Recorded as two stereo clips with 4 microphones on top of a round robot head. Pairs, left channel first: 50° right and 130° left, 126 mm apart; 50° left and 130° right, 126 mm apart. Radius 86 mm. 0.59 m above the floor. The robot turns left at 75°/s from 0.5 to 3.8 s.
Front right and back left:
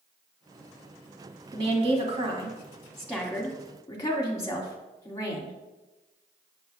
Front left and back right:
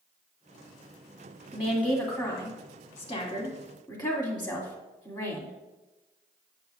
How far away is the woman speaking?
About 1.6 m.